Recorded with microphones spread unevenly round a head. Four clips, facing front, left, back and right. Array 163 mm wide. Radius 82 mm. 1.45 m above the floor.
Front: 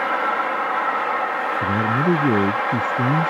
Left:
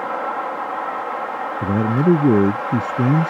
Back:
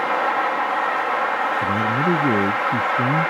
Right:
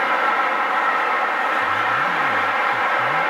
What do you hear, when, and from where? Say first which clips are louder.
1.6 s a man speaking: left 2 dB, even; 90° left